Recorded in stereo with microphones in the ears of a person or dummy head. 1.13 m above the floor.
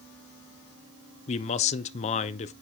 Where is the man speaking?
35° left (ahead or behind), 0.5 m.